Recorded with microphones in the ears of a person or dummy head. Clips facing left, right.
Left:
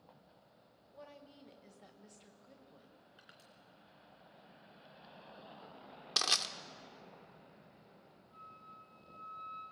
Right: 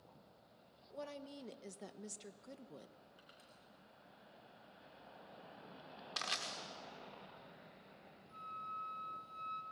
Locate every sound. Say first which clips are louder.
0.9 s a woman speaking: right 7 dB; 55° right (ahead or behind), 1.0 m
3.2 s crushing: left 1 dB; 20° left (ahead or behind), 3 m
6.2 s crushing: left 6 dB; 65° left (ahead or behind), 1.4 m
8.3 s a flute: right 5 dB; 30° right (ahead or behind), 4.5 m